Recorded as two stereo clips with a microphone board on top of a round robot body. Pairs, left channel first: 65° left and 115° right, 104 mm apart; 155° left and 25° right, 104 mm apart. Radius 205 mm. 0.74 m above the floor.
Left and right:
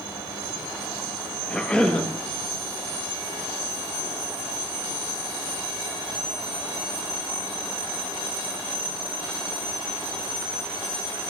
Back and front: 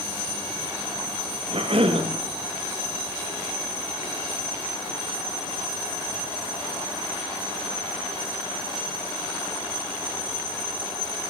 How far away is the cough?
About 1.3 m.